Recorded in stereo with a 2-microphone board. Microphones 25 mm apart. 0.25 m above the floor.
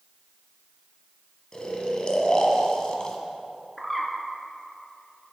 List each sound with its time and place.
1.5 s snoring: 35° left (ahead or behind), 1.1 m
3.8 s a bird: 5° left (ahead or behind), 1.3 m